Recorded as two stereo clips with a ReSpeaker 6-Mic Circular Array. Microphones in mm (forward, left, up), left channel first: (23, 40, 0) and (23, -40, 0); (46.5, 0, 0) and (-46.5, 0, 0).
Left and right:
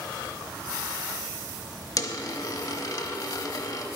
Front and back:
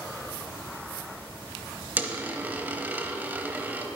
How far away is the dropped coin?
About 0.7 m.